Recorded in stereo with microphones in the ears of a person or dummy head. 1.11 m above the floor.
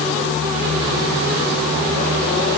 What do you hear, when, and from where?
Only background noise.